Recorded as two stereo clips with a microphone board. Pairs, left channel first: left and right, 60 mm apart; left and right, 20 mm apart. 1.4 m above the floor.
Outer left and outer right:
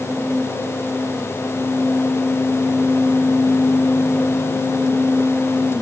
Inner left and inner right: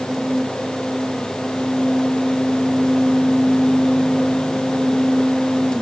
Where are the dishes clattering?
I don't hear dishes clattering.